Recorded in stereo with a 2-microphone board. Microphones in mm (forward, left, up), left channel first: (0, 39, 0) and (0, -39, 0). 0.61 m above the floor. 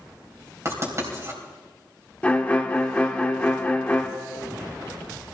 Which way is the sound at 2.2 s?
15° left (ahead or behind).